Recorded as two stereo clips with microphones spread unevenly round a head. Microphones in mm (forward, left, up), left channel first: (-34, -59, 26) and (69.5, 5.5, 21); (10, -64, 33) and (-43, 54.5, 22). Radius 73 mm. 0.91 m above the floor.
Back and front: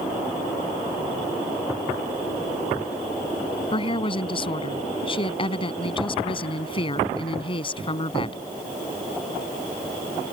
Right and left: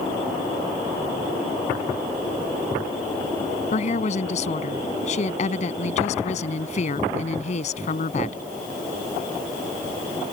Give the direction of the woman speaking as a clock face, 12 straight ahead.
3 o'clock.